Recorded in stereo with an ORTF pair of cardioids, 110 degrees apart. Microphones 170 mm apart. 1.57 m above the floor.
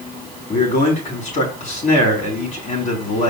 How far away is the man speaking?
About 5 m.